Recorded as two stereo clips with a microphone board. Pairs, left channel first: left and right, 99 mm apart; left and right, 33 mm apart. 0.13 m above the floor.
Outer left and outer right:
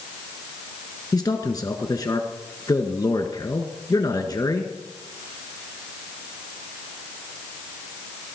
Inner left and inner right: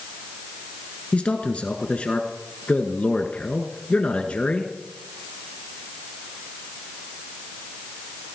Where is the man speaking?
40° left (ahead or behind), 1.5 m.